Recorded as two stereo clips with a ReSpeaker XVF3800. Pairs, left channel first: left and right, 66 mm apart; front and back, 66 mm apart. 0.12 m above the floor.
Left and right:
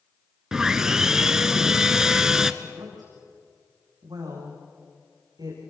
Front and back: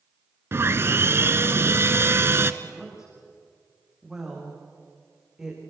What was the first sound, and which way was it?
Sawing, 165° right.